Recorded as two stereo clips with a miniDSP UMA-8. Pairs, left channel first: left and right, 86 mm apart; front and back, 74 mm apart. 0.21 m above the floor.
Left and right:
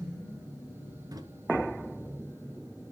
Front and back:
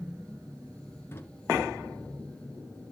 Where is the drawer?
55° right, 1.9 m.